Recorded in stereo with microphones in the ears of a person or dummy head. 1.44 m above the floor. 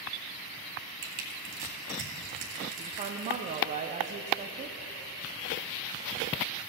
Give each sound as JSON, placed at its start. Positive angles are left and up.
{"t": 1.0, "sound": "crushing", "side_deg": -45, "distance_m": 1.8}
{"t": 2.8, "sound": "a woman speaking", "side_deg": -35, "distance_m": 0.5}